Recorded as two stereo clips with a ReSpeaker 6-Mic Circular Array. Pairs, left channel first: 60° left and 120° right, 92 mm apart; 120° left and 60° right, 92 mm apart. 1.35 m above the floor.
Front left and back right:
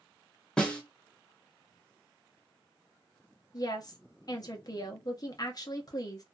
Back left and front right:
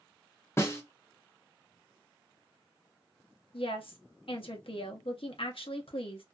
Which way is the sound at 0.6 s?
130° left.